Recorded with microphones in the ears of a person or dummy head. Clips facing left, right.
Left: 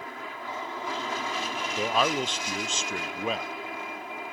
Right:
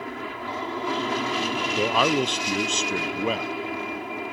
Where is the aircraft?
60° right (ahead or behind).